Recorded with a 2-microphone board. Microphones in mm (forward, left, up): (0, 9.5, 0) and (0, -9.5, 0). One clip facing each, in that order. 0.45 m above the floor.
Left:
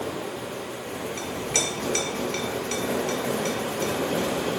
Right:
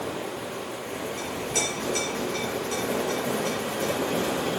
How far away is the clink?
About 2 m.